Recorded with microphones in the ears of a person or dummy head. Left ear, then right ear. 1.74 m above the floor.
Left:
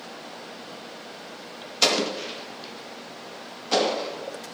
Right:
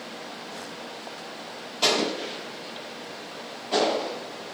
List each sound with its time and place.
1.8 s an explosion: 60° left (ahead or behind), 0.9 m